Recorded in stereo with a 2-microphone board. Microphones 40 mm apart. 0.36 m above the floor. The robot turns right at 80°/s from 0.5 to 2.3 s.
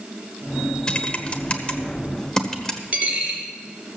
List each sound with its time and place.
0.9 s typing on a keyboard: 20° left (ahead or behind), 1.2 m; by 2.8 s 15° left (ahead or behind), 1.2 m
2.9 s a dropped coin: 30° right (ahead or behind), 3 m